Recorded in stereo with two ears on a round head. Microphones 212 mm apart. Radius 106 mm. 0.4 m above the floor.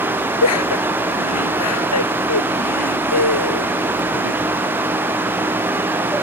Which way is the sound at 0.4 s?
75° left (ahead or behind).